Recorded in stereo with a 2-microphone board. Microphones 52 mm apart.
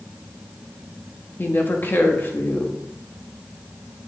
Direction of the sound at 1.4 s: 40° left (ahead or behind).